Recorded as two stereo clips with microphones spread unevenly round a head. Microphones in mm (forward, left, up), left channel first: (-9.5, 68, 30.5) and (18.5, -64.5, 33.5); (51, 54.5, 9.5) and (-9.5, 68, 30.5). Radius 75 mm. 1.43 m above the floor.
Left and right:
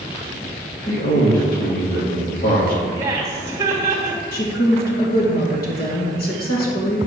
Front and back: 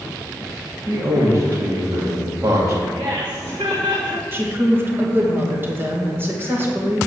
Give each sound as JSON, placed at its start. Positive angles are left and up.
{"t": 0.9, "sound": "a man speaking", "azimuth_deg": 130, "distance_m": 2.5}
{"t": 3.0, "sound": "laughter", "azimuth_deg": -150, "distance_m": 2.0}
{"t": 4.3, "sound": "a woman speaking", "azimuth_deg": 110, "distance_m": 2.0}